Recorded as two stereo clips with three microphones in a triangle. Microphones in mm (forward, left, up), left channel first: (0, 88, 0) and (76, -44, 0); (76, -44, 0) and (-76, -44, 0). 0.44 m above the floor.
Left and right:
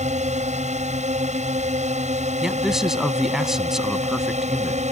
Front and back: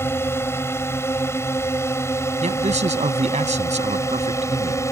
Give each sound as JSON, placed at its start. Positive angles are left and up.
{"t": 0.0, "sound": "a drone", "azimuth_deg": -70}
{"t": 2.4, "sound": "a man speaking", "azimuth_deg": -145}